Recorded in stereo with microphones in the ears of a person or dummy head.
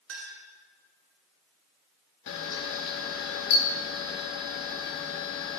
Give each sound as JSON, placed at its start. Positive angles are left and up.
{"t": 0.1, "sound": "a clink", "side_deg": -65, "distance_m": 2.0}
{"t": 2.3, "sound": "a camera shutter", "side_deg": 60, "distance_m": 1.0}